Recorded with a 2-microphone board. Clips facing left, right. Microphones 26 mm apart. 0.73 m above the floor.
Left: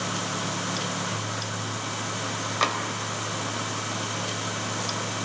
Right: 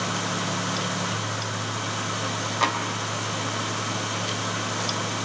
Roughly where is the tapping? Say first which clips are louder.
Right 1 dB; centre.